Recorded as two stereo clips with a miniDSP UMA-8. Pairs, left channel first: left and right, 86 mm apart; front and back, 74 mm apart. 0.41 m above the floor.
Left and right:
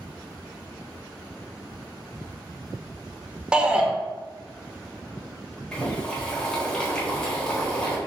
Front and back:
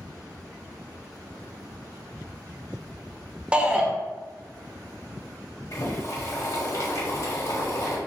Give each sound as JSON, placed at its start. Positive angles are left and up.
{"t": 3.5, "sound": "a shout", "azimuth_deg": -140, "distance_m": 0.7}
{"t": 5.7, "sound": "boiling", "azimuth_deg": 15, "distance_m": 1.2}